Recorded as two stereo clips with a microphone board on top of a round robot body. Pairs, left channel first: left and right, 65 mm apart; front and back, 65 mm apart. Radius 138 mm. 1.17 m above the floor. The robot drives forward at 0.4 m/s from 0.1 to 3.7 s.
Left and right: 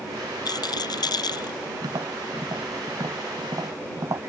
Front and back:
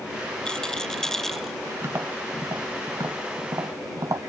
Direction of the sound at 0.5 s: 80° left.